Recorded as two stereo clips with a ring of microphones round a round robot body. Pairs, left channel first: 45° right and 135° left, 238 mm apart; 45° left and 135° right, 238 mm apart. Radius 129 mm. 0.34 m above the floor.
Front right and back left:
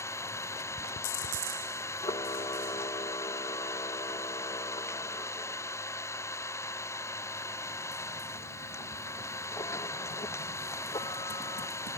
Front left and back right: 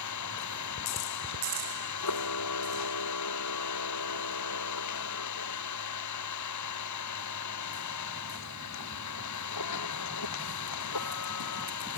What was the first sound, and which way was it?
An engine running, 35° left.